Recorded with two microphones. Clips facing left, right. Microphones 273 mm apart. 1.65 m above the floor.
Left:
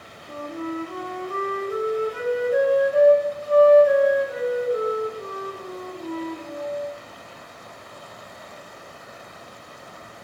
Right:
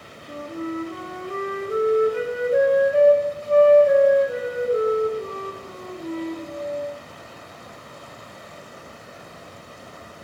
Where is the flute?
25° right (ahead or behind), 0.8 m.